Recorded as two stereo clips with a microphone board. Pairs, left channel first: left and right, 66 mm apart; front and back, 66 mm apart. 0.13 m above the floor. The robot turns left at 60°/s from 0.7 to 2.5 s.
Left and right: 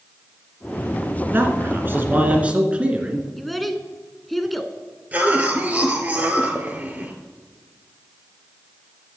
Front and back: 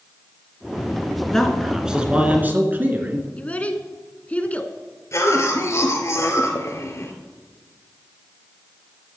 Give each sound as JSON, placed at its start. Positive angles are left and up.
{"t": 1.3, "sound": "a man speaking", "azimuth_deg": -75, "distance_m": 1.8}
{"t": 3.4, "sound": "a child speaking", "azimuth_deg": 0, "distance_m": 1.0}
{"t": 5.1, "sound": "a cough", "azimuth_deg": -30, "distance_m": 2.5}